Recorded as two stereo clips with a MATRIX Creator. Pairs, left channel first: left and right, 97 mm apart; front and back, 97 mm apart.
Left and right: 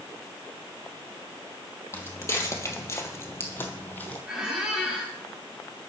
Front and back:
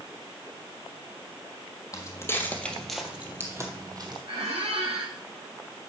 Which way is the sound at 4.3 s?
175° right.